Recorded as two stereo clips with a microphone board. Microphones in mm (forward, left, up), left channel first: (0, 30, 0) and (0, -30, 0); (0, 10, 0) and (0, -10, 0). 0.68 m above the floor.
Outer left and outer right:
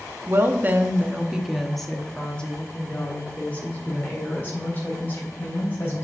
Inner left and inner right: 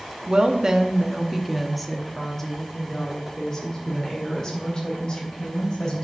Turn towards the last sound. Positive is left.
turn(degrees=35)  # may be behind; listen again after turning